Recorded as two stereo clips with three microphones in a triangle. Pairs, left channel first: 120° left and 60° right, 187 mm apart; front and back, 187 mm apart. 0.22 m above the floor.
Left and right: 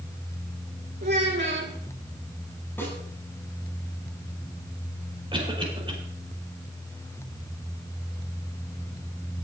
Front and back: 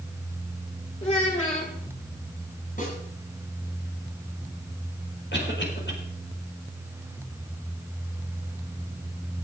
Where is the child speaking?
50° right, 4 m.